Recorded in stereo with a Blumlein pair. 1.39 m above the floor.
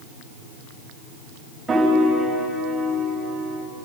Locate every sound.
1.7 s a piano: 10° right, 5 m